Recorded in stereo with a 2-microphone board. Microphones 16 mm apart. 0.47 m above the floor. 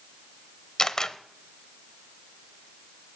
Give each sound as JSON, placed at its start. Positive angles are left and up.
{"t": 0.8, "sound": "a camera shutter", "side_deg": 35, "distance_m": 0.9}